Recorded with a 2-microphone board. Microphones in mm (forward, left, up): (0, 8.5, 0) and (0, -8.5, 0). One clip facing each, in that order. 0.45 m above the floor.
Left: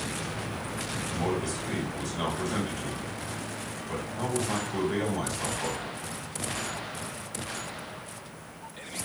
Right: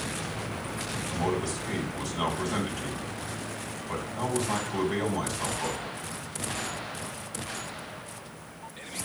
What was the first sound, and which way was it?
A man speaking, 10° right (ahead or behind).